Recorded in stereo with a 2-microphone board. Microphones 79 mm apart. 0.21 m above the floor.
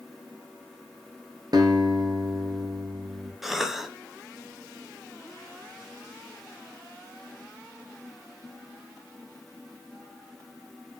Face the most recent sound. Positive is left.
turn(degrees=-5)  # may be behind; listen again after turning